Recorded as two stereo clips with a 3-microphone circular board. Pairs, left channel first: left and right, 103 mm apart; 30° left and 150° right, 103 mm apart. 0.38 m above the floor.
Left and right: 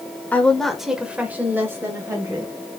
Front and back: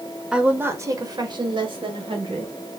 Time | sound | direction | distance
0.3 | a woman speaking | 140° left | 0.9 m